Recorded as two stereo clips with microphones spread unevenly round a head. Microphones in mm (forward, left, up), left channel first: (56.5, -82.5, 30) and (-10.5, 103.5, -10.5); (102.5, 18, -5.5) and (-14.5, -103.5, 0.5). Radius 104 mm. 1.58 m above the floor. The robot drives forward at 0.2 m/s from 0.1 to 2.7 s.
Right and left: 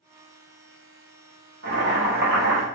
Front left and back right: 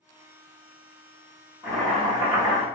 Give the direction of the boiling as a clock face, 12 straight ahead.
7 o'clock.